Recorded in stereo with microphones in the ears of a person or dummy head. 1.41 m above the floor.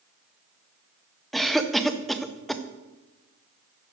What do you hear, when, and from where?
1.3 s a cough: centre (ahead or behind), 0.8 m